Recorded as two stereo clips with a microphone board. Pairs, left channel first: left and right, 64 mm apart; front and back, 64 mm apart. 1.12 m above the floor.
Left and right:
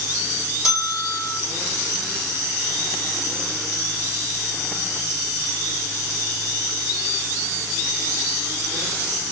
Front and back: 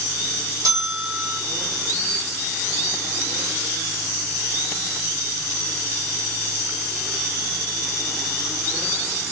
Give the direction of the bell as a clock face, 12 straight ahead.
6 o'clock.